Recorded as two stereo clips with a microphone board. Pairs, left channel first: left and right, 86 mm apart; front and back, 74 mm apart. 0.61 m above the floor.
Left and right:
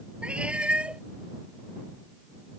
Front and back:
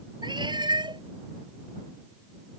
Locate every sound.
0.2 s a cat meowing: 170° right